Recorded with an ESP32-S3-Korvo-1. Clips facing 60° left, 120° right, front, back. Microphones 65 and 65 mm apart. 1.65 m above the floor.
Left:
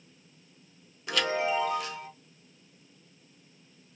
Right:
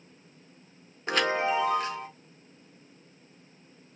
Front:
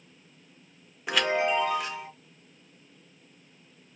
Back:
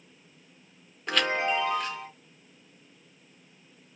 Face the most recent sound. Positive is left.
turn(degrees=-80)